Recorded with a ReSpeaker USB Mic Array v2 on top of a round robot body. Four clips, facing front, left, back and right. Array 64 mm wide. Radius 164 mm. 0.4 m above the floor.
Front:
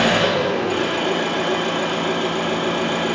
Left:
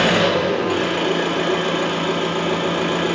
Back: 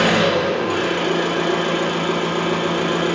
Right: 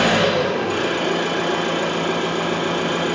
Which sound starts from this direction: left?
An engine running, at 0.0 s.